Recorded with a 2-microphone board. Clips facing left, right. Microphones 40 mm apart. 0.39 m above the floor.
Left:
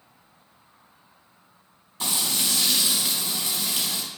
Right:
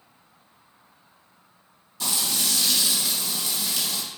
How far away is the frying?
About 1.0 m.